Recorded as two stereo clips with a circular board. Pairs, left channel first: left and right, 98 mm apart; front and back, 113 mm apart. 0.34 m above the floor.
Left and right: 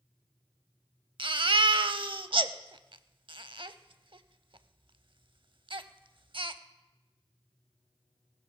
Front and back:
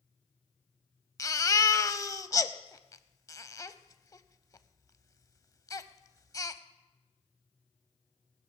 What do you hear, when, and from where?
1.2 s a baby crying: 60° right, 0.5 m